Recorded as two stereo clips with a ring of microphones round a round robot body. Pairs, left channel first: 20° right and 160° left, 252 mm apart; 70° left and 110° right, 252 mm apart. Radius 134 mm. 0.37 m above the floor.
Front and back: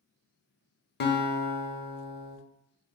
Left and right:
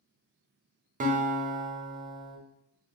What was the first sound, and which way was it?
A guitar, 60° right.